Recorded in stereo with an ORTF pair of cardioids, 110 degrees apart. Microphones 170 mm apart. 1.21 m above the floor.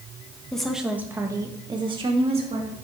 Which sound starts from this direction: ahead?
A woman speaking, at 0.5 s.